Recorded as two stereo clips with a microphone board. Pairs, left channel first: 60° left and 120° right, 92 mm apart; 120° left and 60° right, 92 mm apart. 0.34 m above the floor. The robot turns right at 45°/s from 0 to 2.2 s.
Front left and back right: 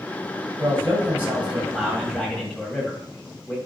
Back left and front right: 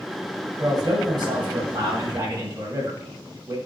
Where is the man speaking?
85° right, 2 m; by 3.6 s 15° right, 2 m.